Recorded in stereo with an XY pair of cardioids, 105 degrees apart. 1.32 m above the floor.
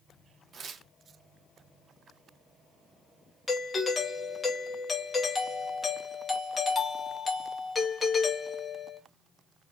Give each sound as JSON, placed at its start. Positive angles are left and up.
{"t": 0.5, "sound": "tearing paper", "azimuth_deg": -45, "distance_m": 0.9}
{"t": 3.5, "sound": "a doorbell", "azimuth_deg": 30, "distance_m": 1.1}